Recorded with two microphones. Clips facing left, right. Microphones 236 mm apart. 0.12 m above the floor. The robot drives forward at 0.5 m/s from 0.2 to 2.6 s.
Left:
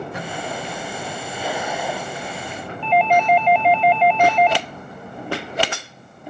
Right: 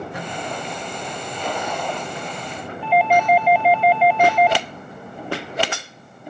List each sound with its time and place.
2.8 s a doorbell: 5° right (ahead or behind)